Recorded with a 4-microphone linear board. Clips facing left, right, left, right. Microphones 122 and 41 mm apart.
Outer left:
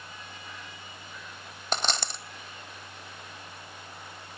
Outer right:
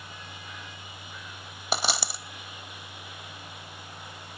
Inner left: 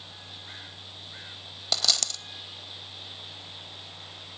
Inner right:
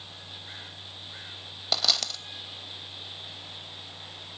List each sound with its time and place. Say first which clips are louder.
1.7 s a dropped coin: outer right 1 dB, inner right 1 dB; 10° right (ahead or behind), 0.8 m